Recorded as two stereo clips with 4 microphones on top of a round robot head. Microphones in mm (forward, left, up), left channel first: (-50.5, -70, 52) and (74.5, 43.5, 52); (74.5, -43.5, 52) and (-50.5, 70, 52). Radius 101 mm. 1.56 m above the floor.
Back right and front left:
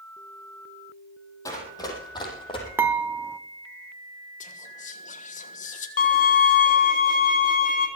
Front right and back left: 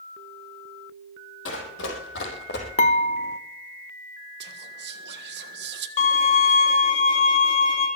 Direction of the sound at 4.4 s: 170° left.